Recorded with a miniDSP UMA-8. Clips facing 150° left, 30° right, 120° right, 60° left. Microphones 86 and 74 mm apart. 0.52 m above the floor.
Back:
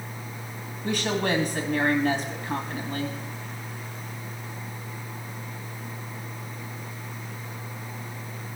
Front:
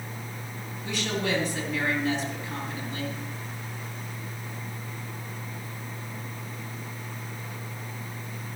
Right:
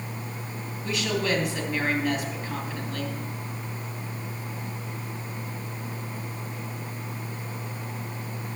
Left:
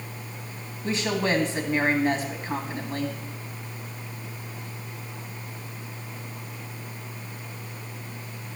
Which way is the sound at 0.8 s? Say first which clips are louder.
Back 3 dB, left 1 dB; 115° left.